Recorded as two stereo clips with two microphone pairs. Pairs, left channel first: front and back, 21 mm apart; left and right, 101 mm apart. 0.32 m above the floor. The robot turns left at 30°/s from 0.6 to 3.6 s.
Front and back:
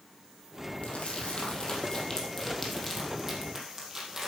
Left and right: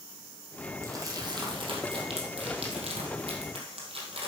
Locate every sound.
0.8 s crumpling: 30° right, 2.5 m; by 4.3 s 110° right, 2.5 m